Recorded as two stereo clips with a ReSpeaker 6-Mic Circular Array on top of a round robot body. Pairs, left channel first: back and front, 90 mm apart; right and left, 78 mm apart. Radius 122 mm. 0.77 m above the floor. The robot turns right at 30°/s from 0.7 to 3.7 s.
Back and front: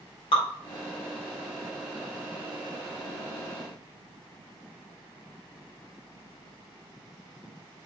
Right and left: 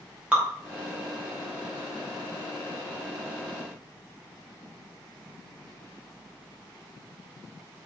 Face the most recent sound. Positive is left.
turn(degrees=-105)